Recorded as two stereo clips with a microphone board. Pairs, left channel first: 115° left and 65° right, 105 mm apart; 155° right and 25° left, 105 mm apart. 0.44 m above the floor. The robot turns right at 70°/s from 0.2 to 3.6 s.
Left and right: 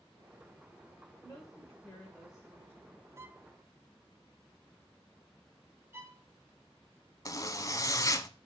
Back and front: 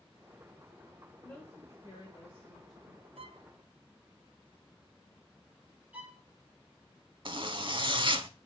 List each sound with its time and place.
1.2 s a woman speaking: 130° left, 1.7 m; by 3.0 s 100° right, 1.7 m
3.2 s a violin: 5° right, 0.5 m; by 3.5 s 20° left, 0.5 m
5.9 s a violin: 35° right, 1.5 m
7.2 s a zipper: 55° left, 0.6 m